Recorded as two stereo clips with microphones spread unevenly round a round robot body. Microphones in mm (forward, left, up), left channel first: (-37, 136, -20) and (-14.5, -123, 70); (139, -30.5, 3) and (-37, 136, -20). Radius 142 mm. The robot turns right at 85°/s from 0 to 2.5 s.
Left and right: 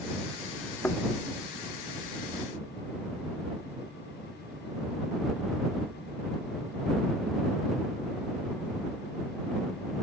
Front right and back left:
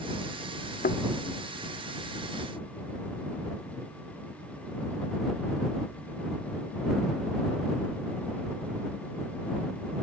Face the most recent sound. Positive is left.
turn(degrees=150)